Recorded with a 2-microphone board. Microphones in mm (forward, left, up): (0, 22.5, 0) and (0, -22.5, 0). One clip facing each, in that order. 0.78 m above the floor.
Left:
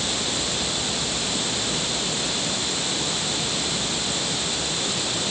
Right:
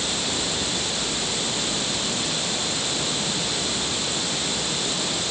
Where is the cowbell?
No cowbell in this recording.